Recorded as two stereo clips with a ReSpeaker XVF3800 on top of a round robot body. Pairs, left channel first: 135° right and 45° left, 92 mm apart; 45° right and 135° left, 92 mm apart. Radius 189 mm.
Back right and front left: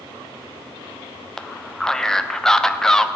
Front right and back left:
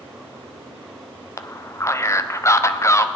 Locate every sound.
1.4 s a man speaking: 55° right, 1.0 m